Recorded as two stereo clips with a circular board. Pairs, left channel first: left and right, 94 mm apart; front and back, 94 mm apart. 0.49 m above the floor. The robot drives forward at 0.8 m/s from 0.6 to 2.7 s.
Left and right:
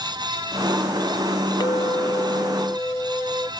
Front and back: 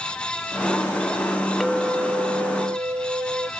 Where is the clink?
90° left; by 3.5 s 155° left.